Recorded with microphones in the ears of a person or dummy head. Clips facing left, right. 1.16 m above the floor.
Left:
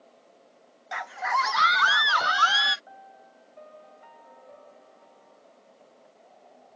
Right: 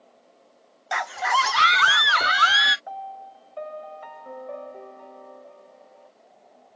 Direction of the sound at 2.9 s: 80° right.